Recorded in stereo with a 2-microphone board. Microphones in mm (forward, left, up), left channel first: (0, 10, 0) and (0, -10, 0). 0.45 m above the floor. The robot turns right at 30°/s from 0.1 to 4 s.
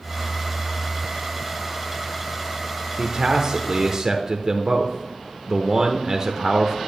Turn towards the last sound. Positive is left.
turn(degrees=-40)